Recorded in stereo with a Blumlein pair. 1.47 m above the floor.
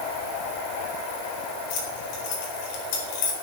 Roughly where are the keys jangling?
Ahead left.